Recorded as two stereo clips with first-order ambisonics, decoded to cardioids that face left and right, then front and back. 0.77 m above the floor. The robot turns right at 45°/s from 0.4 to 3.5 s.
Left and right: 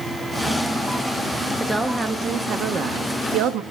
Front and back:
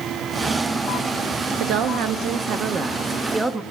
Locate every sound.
1.6 s a woman speaking: 175° left, 0.8 m; by 3.6 s 100° right, 0.8 m